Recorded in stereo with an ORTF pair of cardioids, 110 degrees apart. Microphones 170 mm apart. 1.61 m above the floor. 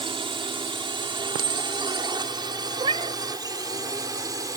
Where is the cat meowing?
35° right.